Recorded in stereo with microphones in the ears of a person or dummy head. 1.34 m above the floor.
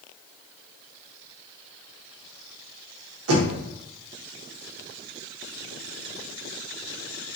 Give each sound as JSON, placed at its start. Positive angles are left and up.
{"t": 3.3, "sound": "knocking", "side_deg": -75, "distance_m": 1.1}